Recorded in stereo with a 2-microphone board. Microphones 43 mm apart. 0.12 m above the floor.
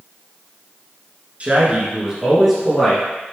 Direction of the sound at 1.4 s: 35° right (ahead or behind).